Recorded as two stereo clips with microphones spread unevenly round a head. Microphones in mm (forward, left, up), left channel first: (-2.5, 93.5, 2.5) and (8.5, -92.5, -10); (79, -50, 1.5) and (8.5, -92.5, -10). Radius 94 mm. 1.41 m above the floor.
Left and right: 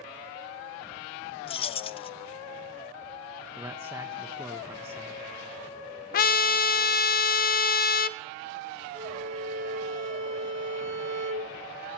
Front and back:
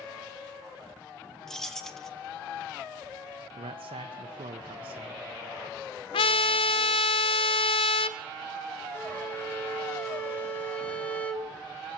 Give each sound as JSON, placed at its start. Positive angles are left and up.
{"t": 1.5, "sound": "keys jangling", "azimuth_deg": 100, "distance_m": 0.5}
{"t": 3.6, "sound": "a man speaking", "azimuth_deg": -160, "distance_m": 0.7}
{"t": 6.1, "sound": "a trumpet", "azimuth_deg": 50, "distance_m": 0.5}
{"t": 8.9, "sound": "a violin", "azimuth_deg": -35, "distance_m": 2.5}